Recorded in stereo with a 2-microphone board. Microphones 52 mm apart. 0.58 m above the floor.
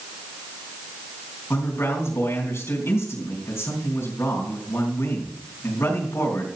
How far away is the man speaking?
About 4 m.